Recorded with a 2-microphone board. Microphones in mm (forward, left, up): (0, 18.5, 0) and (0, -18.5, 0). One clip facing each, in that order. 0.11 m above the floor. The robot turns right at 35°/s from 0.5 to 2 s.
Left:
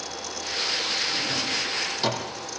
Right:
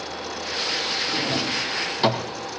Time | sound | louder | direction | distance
1.1 | a drawer | right 3 dB | 55° right (ahead or behind) | 3 m